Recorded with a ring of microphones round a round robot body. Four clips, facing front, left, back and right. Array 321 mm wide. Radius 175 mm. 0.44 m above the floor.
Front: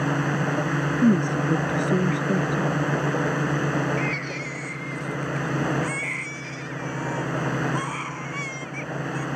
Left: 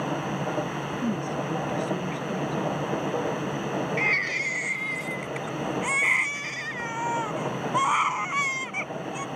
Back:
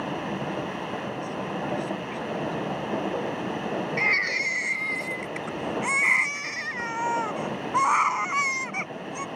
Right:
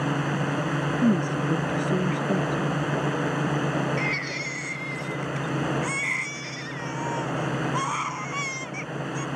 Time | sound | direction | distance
0.0 | a drone | 25° right | ?
1.0 | a woman speaking | 25° right | ?
4.0 | a baby crying | 150° left | ?